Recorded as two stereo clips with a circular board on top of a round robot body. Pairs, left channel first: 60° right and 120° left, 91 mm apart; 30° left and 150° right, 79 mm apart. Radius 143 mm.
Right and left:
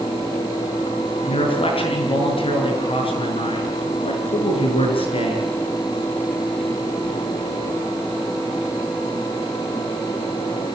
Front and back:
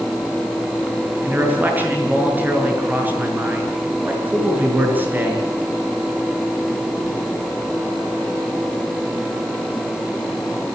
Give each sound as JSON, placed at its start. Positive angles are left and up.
{"t": 1.2, "sound": "a man speaking", "azimuth_deg": -80, "distance_m": 7.0}